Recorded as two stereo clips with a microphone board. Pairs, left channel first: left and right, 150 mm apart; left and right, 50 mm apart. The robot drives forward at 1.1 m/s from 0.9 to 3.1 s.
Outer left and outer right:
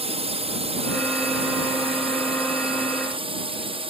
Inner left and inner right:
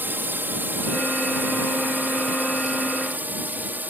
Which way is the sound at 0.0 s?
40° right (ahead or behind).